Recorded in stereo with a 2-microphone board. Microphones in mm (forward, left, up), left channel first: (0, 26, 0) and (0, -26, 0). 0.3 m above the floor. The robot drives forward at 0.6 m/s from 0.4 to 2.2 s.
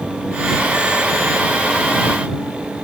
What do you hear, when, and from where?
Only background noise.